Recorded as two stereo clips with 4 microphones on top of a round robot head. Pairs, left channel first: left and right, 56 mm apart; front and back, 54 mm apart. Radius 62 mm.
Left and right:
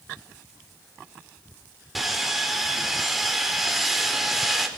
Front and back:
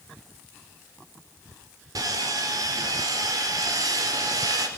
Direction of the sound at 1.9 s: Straight behind.